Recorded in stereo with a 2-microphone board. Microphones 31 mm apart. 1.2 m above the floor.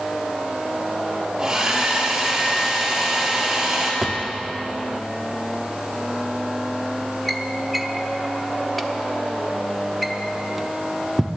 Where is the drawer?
Centre (ahead or behind), 0.8 m.